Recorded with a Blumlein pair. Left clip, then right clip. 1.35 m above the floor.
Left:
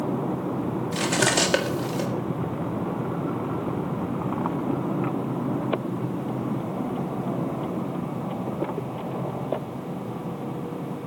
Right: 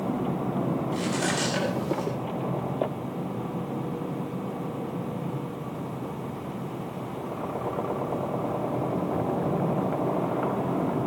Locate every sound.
0.9 s cutlery clinking: 30° left, 1.8 m